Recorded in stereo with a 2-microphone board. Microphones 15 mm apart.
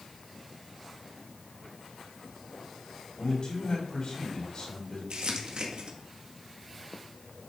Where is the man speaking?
60° left (ahead or behind), 3.5 m.